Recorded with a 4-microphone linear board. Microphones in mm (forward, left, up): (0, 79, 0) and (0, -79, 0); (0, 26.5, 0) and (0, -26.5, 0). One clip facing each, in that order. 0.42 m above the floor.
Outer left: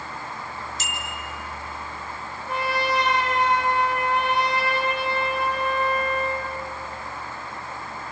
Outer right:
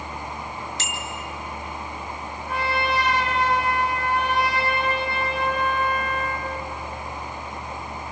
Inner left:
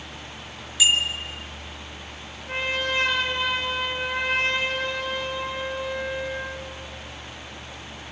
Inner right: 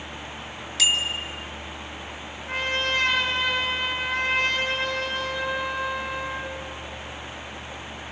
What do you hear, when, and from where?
0.8 s a bicycle bell: 75° right (ahead or behind), 2.5 m
2.5 s a trumpet: 60° right (ahead or behind), 7.5 m